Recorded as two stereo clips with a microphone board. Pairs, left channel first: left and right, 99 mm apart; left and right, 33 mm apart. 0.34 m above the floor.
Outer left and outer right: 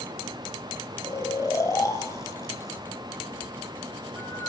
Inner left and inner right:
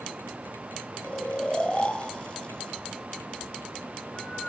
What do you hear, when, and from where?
1.0 s snoring: 35° left (ahead or behind), 1.6 m